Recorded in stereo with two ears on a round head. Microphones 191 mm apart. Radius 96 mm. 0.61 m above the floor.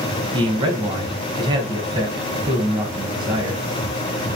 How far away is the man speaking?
About 4.5 m.